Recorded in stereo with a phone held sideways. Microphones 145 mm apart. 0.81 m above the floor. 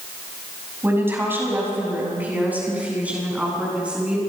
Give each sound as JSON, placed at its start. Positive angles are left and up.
{"t": 0.8, "sound": "a woman speaking", "side_deg": -15, "distance_m": 6.0}